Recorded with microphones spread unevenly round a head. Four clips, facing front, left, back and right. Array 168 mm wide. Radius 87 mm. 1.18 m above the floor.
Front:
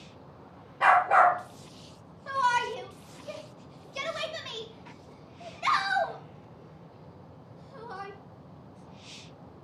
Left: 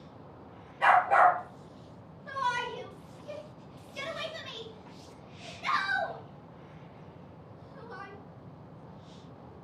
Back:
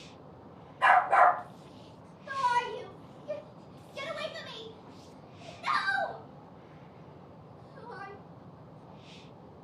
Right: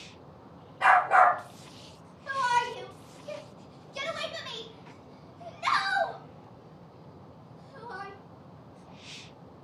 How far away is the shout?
About 3.5 m.